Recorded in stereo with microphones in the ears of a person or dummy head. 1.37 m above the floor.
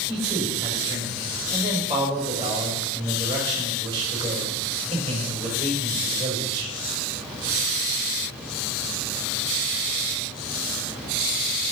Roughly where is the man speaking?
Right.